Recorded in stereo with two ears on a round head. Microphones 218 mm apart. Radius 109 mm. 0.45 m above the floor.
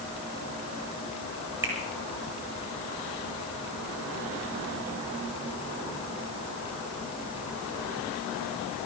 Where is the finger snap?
10° right (ahead or behind), 6 m.